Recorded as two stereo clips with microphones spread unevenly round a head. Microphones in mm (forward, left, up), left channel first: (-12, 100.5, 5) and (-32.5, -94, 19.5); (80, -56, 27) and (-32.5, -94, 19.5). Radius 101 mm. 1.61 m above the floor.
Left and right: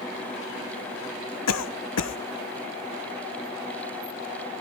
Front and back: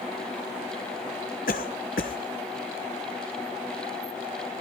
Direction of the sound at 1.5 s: 65° left.